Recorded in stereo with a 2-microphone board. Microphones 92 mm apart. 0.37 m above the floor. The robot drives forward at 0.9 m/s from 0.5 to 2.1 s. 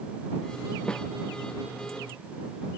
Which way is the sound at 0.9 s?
10° left (ahead or behind).